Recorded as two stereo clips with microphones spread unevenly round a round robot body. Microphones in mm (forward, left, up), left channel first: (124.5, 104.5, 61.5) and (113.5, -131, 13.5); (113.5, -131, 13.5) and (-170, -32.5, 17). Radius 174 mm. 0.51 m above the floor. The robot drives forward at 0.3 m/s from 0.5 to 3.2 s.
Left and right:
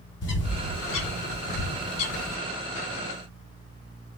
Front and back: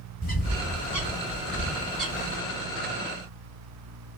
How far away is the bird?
About 1.1 m.